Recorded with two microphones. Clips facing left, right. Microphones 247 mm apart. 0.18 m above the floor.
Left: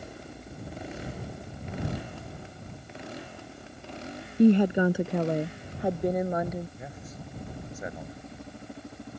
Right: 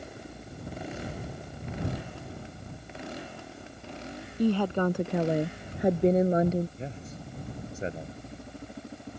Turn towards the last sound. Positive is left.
turn(degrees=-30)  # may be behind; listen again after turning